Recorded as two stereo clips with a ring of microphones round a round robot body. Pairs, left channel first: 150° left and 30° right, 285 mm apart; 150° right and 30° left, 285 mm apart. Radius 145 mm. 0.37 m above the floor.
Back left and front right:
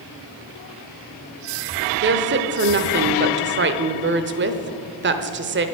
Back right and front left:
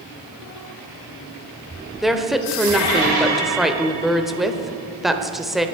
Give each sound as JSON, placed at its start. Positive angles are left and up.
{"t": 2.0, "sound": "a woman speaking", "azimuth_deg": -60, "distance_m": 1.1}